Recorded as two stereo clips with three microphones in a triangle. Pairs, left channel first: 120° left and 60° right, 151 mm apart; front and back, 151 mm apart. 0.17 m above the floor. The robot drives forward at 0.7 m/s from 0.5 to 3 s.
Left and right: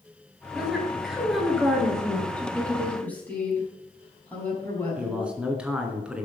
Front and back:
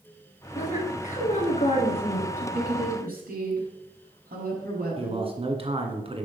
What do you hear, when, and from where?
0.6 s a woman speaking: 25° left, 3.5 m; by 2.3 s 40° left, 2.5 m
2.4 s a woman speaking: 160° right, 5 m
5.0 s a man speaking: 140° right, 1.9 m